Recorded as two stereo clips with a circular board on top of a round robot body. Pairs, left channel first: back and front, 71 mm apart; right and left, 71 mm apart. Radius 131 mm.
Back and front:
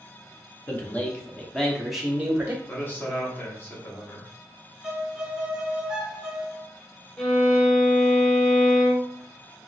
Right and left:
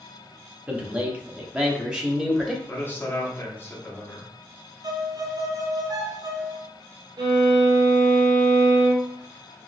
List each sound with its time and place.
0.7 s a man speaking: 145° left, 1.3 m; by 2.6 s 20° left, 1.2 m
2.7 s a man speaking: 135° right, 1.6 m
4.8 s a violin: 75° left, 1.0 m
7.2 s a violin: 105° left, 1.1 m